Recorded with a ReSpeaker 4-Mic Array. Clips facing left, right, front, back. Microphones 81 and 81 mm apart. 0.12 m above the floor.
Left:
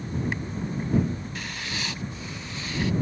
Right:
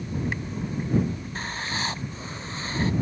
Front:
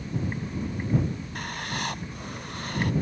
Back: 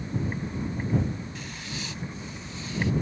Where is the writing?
35° right.